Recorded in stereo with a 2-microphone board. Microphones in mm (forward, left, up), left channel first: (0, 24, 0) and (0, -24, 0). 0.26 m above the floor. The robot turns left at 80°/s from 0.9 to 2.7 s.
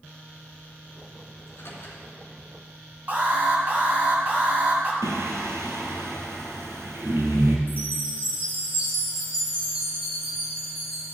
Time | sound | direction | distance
1.4 | a microwave | 70° left (ahead or behind) | 2.5 m
3.1 | an alarm | 35° right (ahead or behind) | 1.8 m
5.0 | singing | 85° right | 1.3 m
7.7 | a chime | 50° right (ahead or behind) | 3 m